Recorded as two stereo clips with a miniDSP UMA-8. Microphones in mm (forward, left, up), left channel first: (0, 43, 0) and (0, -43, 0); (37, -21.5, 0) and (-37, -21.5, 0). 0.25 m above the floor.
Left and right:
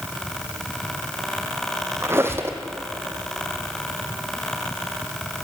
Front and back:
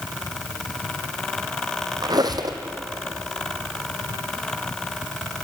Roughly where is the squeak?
Behind right.